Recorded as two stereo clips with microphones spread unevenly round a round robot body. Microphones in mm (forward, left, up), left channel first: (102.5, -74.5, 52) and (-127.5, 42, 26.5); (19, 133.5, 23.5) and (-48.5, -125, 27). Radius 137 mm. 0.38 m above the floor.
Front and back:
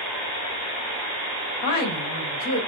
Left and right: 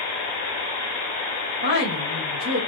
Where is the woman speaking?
75° right, 1.8 m.